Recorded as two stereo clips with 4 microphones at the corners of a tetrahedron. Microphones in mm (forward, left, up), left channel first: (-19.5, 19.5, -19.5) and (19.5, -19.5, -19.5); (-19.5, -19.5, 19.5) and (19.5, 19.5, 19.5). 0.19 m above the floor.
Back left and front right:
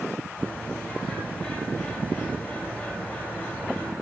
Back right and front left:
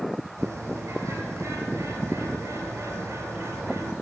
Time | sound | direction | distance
0.4 | a bird | 75° left | 2.5 m